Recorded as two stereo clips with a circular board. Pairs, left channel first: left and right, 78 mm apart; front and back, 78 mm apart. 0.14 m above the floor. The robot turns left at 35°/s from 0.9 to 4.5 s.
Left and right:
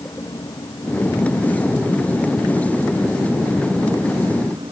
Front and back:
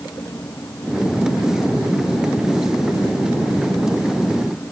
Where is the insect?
55° left; by 4.7 s 70° right.